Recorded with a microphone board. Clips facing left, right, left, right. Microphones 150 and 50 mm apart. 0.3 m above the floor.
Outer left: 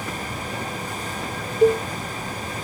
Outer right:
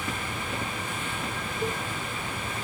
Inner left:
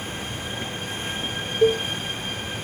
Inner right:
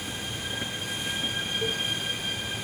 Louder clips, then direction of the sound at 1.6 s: Outer left 16 dB, inner left 15 dB; 70° left (ahead or behind).